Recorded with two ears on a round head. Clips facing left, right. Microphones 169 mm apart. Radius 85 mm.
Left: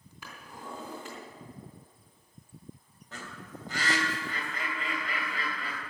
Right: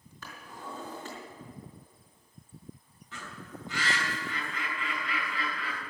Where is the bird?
35° left (ahead or behind), 2.5 m.